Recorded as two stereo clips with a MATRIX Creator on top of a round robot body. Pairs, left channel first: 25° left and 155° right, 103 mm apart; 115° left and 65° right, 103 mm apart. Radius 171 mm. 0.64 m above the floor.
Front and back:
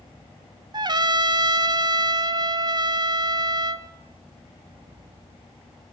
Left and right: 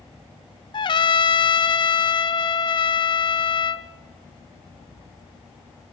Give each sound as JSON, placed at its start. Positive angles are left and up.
{"t": 0.7, "sound": "a trumpet", "azimuth_deg": 155, "distance_m": 0.6}